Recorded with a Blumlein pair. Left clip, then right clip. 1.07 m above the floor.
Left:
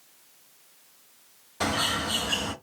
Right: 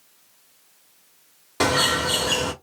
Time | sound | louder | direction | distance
1.6 | a bird | right 6 dB | 45° right | 1.3 m